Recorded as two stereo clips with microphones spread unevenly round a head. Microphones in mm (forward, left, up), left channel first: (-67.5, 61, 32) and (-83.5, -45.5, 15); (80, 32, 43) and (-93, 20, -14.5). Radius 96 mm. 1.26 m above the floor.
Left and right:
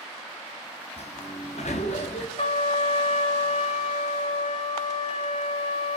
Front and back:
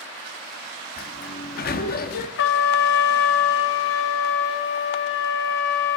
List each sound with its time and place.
1.0 s a sliding door: 30° left, 1.4 m
2.4 s a trumpet: 20° left, 1.5 m